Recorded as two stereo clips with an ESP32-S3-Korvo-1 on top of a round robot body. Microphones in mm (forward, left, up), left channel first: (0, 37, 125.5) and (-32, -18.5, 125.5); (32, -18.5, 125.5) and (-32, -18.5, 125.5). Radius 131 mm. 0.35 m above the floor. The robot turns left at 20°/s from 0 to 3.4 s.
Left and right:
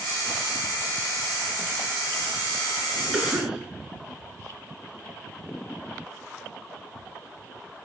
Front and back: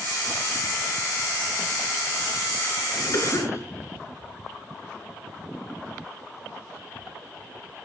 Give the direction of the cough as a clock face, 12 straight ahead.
1 o'clock.